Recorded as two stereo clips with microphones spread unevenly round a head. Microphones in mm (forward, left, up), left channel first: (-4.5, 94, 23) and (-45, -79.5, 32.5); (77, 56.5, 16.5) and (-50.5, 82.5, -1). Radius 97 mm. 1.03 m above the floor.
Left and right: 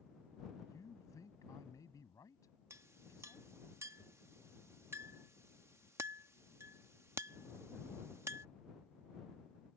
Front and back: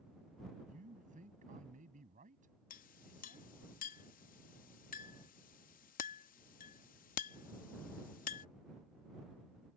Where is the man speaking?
150° left.